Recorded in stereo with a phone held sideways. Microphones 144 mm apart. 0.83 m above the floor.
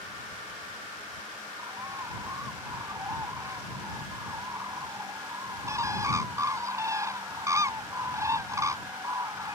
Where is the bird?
20° right (ahead or behind).